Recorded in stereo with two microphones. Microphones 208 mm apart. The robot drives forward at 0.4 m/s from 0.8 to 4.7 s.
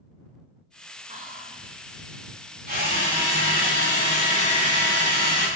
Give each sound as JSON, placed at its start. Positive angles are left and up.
{"t": 1.1, "sound": "whispering", "side_deg": -35, "distance_m": 0.8}
{"t": 2.7, "sound": "a drill", "side_deg": -45, "distance_m": 3.0}